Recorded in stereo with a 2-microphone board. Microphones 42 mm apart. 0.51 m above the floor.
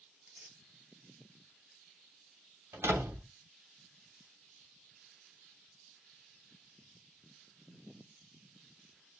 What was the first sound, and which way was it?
Tearing paper, 25° right (ahead or behind).